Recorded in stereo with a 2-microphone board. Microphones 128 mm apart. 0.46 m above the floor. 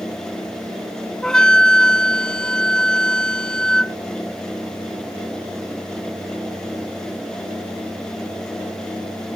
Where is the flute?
5° left (ahead or behind).